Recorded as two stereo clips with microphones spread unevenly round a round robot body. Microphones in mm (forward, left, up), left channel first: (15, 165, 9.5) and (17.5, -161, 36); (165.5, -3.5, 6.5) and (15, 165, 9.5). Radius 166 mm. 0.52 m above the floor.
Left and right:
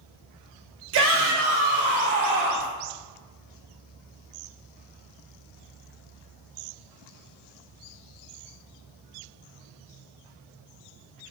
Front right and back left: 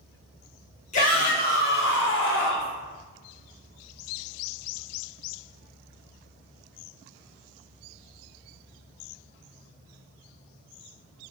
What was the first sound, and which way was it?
A shout, 70° right.